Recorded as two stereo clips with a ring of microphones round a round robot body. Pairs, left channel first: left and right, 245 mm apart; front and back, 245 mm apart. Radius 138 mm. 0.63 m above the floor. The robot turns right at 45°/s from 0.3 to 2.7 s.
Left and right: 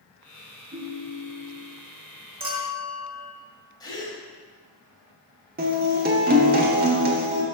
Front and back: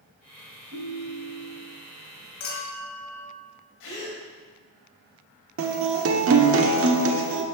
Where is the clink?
25° right, 2 m; by 3.3 s 10° right, 2 m.